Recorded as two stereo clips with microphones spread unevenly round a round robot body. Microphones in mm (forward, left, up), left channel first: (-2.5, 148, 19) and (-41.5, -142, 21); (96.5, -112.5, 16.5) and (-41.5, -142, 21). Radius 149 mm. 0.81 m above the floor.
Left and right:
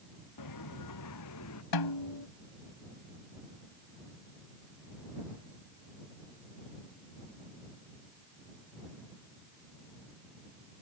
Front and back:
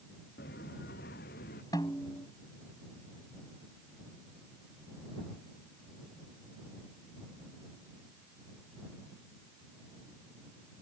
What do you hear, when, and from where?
0.4 s footsteps: 55° left; by 1.6 s 40° left
1.7 s a snare drum: 90° left